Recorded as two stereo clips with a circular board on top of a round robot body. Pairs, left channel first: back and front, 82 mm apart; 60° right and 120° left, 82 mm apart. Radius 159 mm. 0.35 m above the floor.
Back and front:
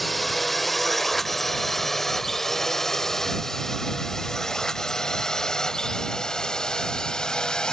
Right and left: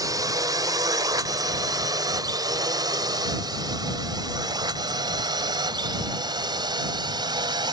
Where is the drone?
90° left; by 7.7 s 100° left.